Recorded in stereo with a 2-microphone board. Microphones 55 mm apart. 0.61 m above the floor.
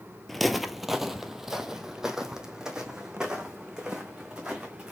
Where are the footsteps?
5° left (ahead or behind), 0.7 m; by 4.9 s 10° right (ahead or behind), 3 m.